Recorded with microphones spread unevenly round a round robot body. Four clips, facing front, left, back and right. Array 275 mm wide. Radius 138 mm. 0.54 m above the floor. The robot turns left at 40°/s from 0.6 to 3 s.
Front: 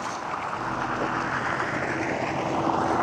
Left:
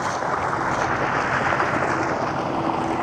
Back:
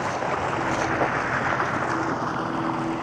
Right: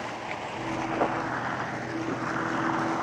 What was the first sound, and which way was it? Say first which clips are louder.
Running water: left 11 dB, back 5 dB; 135° left.